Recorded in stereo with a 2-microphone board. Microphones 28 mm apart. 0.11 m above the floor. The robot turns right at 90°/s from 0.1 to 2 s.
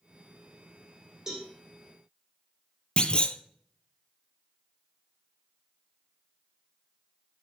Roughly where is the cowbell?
Right.